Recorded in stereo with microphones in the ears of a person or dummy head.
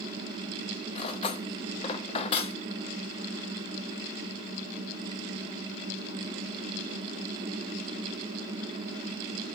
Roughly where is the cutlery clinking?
Left.